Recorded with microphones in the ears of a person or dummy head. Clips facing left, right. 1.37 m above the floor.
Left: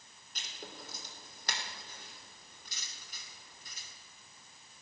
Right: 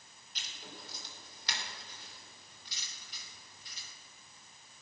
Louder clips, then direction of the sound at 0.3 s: Left 3 dB; 55° left (ahead or behind).